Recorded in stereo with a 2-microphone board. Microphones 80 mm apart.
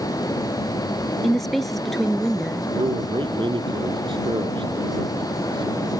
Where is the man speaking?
85° right.